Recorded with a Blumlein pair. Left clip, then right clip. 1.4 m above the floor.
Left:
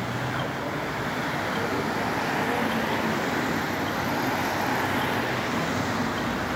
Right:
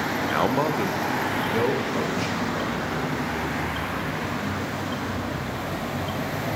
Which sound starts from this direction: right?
A man speaking, at 0.3 s.